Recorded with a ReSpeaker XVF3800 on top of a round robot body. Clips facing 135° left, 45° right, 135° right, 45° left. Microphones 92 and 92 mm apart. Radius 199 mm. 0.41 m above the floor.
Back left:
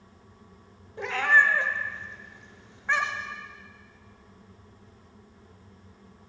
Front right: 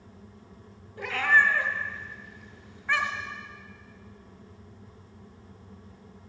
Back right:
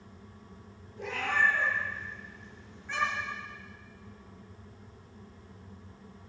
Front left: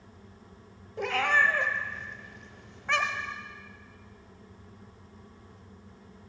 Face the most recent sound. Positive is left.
turn(degrees=70)